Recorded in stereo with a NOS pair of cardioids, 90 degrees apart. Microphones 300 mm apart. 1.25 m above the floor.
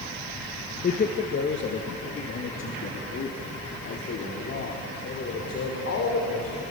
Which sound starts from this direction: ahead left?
A man speaking, at 0.8 s.